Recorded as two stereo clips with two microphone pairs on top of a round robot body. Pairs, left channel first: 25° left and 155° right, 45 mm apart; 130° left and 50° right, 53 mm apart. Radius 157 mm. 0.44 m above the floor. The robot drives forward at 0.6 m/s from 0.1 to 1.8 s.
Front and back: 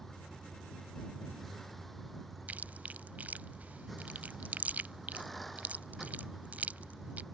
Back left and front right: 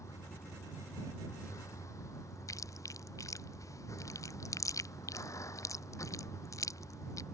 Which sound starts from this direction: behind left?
Chewing, at 2.5 s.